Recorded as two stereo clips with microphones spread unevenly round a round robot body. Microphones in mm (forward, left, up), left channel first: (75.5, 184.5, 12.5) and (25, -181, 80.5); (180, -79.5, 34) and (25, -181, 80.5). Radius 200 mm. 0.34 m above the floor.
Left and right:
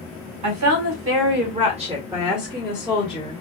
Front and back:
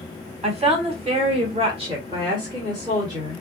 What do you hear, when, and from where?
0.4 s a woman speaking: 90° right, 1.5 m; by 3.4 s 130° left, 1.7 m